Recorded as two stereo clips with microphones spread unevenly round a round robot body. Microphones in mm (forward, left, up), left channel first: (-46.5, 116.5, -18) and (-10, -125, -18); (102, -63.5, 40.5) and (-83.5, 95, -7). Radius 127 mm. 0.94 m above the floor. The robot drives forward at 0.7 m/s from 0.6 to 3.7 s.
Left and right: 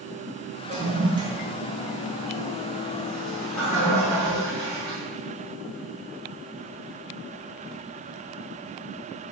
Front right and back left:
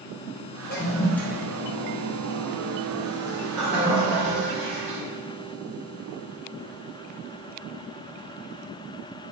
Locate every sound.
0.7 s a toilet flushing: 60° right, 0.6 m; by 5.0 s 175° right, 2 m